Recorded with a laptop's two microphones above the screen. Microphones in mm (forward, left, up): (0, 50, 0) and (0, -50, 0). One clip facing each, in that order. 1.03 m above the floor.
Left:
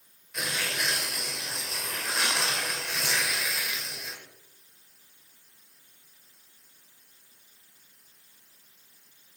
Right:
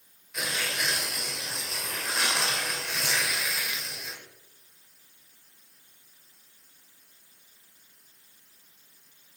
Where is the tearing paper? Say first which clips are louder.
Even; centre (ahead or behind), 1.5 m.